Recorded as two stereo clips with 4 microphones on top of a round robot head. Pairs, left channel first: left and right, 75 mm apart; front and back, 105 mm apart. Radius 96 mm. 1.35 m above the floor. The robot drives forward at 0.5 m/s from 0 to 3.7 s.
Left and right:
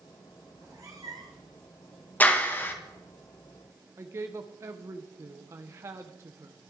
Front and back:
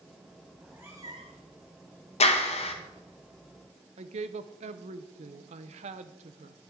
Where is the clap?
20° left, 1.2 m; by 2.8 s 25° left, 0.9 m.